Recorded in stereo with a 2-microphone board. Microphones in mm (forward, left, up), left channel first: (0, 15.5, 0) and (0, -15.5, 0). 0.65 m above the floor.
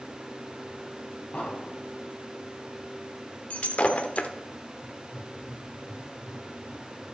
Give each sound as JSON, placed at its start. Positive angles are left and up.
{"t": 1.3, "sound": "an explosion", "side_deg": 50, "distance_m": 2.0}
{"t": 3.5, "sound": "breaking glass", "side_deg": 50, "distance_m": 0.6}
{"t": 4.8, "sound": "writing", "side_deg": 30, "distance_m": 4.5}